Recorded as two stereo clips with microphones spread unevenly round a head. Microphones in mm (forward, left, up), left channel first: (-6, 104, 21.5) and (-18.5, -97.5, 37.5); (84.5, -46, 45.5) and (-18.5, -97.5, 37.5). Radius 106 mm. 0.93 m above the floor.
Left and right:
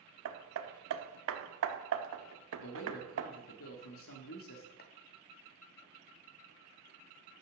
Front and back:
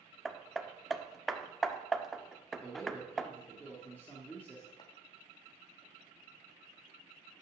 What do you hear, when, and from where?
0.2 s hammering: 60° right, 1.1 m
2.6 s a man speaking: 105° left, 1.6 m
4.8 s chopping: 80° left, 1.2 m